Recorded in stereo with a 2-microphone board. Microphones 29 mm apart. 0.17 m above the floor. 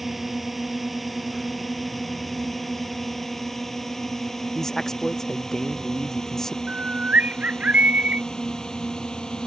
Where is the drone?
Centre (ahead or behind); by 9.5 s 25° left (ahead or behind).